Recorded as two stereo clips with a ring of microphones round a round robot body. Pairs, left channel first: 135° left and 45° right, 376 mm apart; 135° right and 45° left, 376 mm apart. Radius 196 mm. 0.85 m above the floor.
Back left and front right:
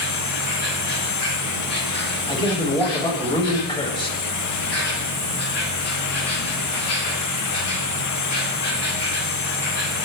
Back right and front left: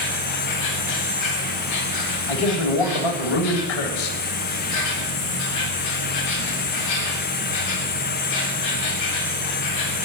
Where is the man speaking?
145° right, 3.5 m.